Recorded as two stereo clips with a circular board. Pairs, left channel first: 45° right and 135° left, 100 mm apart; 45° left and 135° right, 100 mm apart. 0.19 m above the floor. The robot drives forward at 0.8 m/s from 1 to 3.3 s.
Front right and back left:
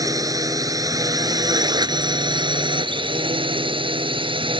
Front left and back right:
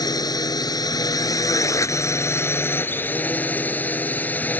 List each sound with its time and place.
0.0 s a drone: 90° left; by 4.6 s 115° left